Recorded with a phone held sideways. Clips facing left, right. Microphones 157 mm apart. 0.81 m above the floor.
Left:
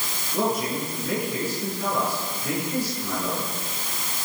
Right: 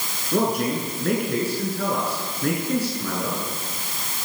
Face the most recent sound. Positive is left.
turn(degrees=-65)  # may be behind; listen again after turning